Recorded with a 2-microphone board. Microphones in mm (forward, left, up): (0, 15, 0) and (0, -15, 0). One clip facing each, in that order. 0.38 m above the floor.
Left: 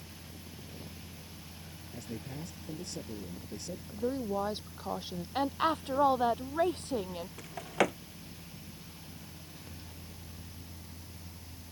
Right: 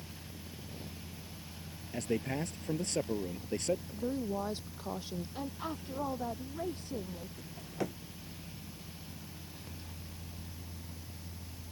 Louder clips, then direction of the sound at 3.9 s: Left 2 dB; 20° left (ahead or behind).